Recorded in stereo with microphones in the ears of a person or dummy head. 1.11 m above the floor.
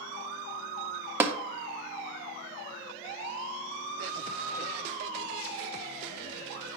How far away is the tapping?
About 0.5 m.